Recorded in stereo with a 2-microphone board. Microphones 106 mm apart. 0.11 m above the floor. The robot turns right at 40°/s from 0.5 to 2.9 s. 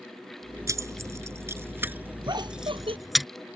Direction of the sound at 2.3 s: 40° right (ahead or behind).